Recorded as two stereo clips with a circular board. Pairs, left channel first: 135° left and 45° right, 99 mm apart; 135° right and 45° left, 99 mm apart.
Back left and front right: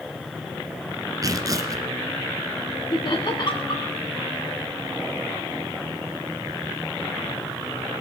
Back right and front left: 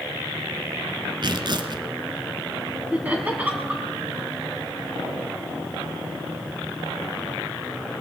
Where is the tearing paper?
5° left, 1.3 m.